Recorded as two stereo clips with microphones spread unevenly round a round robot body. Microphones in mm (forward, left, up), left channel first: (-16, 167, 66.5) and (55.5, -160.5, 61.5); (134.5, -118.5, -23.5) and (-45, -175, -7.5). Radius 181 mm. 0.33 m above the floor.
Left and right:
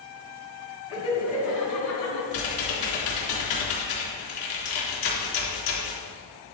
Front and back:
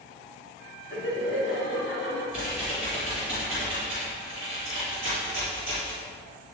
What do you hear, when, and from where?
0.9 s laughter: 55° left, 3 m; by 2.2 s 75° left, 4 m
2.3 s typing on a keyboard: 85° left, 3.5 m